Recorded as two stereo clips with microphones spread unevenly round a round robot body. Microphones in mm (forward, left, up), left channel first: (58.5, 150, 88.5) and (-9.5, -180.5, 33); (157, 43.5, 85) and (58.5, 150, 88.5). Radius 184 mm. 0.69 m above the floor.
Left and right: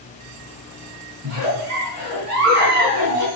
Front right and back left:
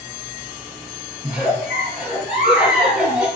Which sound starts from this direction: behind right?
A giggle, at 1.2 s.